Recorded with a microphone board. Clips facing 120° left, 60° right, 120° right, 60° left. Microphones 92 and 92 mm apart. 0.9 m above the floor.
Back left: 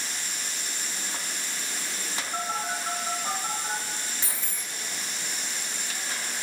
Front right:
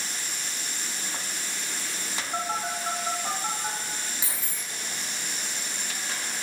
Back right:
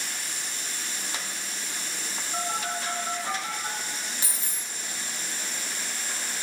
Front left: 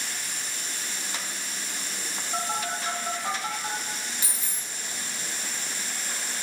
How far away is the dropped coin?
About 1.0 m.